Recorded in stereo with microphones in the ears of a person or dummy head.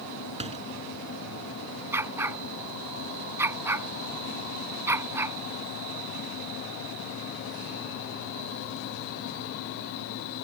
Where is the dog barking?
15° right (ahead or behind).